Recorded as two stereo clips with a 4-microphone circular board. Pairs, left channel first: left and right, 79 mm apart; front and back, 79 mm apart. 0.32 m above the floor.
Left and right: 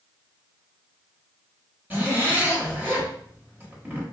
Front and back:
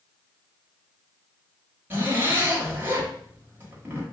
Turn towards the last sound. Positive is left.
turn(degrees=-140)